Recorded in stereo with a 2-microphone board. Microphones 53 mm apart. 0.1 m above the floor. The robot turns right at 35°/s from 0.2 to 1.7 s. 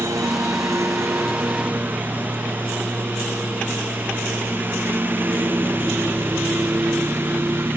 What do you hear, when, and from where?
0.0 s a lawn mower: 90° right; by 7.8 s 45° right (ahead or behind)